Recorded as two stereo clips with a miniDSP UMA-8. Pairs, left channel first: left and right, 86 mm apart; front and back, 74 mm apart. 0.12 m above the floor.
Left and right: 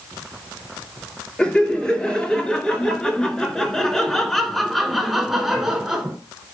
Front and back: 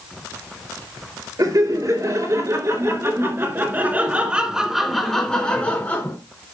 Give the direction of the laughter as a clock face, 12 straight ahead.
6 o'clock.